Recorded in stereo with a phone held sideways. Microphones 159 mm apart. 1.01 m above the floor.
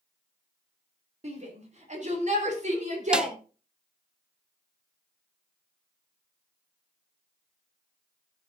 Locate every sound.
1.2 s a shout: 45° right (ahead or behind), 3.5 m; by 3.4 s 50° right (ahead or behind), 5 m
3.1 s a snare drum: 5° right (ahead or behind), 0.6 m